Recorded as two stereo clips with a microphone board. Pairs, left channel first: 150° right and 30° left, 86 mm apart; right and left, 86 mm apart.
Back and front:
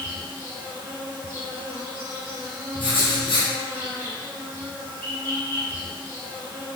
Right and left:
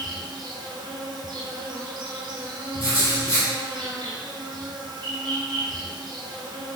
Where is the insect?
85° left, 1.3 m.